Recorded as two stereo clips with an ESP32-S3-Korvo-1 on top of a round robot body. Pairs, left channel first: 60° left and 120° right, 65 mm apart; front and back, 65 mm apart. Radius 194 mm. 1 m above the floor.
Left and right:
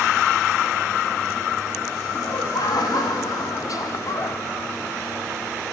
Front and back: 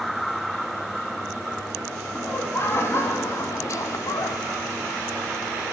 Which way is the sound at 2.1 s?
55° left.